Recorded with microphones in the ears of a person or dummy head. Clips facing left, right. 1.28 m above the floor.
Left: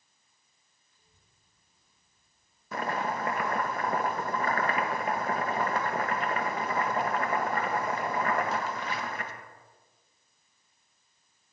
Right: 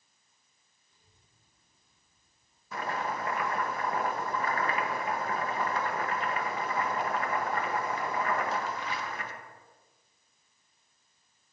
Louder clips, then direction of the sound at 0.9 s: Right 1 dB; 25° right (ahead or behind).